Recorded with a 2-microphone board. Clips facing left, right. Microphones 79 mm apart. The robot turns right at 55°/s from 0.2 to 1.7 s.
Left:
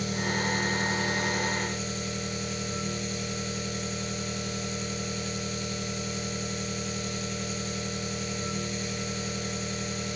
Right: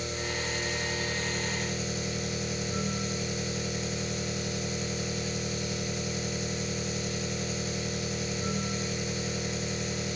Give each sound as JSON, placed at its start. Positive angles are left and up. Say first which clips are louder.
{"t": 0.0, "sound": "an engine running", "louder": "left 4 dB", "azimuth_deg": 105, "distance_m": 1.1}